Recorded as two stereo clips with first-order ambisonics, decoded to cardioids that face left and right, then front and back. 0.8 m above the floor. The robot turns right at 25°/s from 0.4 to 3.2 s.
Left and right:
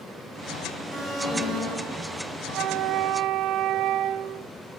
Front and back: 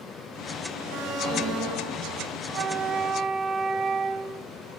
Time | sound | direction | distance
0.9 | an alarm | 160° left | 5 m
2.5 | a flute | 130° right | 0.9 m